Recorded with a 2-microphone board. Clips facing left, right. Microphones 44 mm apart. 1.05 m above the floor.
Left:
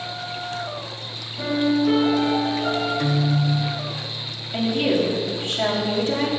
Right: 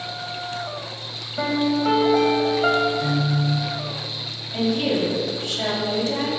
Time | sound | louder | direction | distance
1.4 | a piano | left 1 dB | 70° right (ahead or behind) | 2.5 m
3.0 | a guitar | left 1 dB | 55° left (ahead or behind) | 1.3 m
4.5 | a woman speaking | left 1 dB | 30° left (ahead or behind) | 3 m